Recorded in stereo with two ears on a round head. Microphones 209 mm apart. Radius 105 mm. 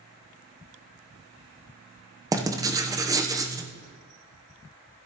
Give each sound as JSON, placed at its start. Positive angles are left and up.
{"t": 2.3, "sound": "writing", "side_deg": -15, "distance_m": 0.8}